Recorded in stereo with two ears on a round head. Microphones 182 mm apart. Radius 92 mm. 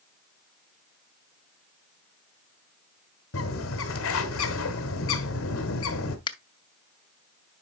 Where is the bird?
75° left (ahead or behind), 1.5 m.